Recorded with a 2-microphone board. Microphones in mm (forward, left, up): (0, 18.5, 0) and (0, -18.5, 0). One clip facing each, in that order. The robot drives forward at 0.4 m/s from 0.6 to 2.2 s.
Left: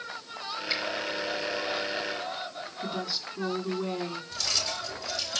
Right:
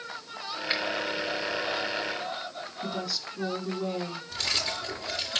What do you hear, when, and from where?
0.7 s a finger snap: 35° right (ahead or behind), 3.5 m
2.8 s a woman speaking: 20° left (ahead or behind), 3 m
4.3 s keys jangling: 40° right (ahead or behind), 3 m